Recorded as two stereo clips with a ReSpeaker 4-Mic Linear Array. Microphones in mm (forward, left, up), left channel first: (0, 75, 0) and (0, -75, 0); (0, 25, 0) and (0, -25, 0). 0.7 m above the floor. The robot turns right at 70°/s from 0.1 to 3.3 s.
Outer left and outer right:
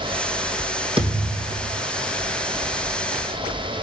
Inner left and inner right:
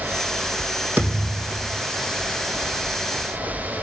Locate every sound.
1.0 s a thud: 145° right, 3 m; by 1.8 s 85° right, 3 m